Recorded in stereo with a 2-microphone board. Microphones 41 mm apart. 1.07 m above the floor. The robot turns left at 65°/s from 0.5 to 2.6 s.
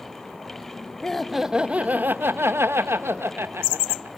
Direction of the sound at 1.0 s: 15° left.